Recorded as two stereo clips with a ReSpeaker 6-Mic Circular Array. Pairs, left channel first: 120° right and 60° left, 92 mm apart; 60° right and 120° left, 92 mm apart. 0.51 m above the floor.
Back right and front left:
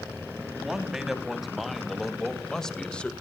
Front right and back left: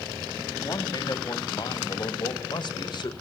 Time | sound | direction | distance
0.6 | a man speaking | 25° right | 3.5 m